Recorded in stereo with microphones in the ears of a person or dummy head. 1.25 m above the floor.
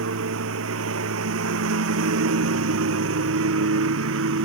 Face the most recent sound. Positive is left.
turn(degrees=-75)  # may be behind; listen again after turning